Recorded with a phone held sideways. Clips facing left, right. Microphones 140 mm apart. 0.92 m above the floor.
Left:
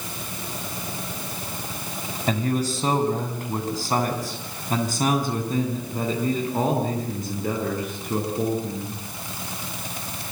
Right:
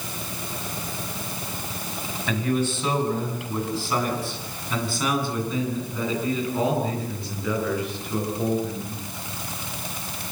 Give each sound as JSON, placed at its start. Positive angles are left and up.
{"t": 2.3, "sound": "a man speaking", "side_deg": 35, "distance_m": 6.0}